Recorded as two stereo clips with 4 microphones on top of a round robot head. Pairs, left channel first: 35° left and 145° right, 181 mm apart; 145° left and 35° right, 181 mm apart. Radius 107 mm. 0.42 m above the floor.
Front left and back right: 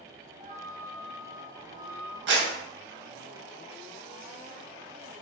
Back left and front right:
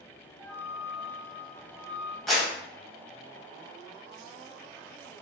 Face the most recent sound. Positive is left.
turn(degrees=-130)